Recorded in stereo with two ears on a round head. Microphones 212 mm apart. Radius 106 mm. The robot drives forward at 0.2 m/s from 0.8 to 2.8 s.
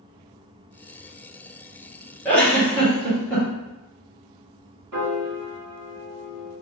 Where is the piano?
70° right (ahead or behind), 1.4 m.